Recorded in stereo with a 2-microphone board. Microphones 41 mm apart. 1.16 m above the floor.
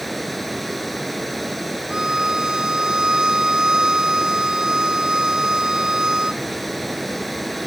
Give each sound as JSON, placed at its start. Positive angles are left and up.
{"t": 0.0, "sound": "running water", "side_deg": 0}
{"t": 1.9, "sound": "a violin", "side_deg": -20}